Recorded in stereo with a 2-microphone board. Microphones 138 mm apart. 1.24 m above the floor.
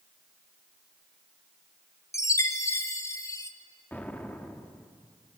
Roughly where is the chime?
Left.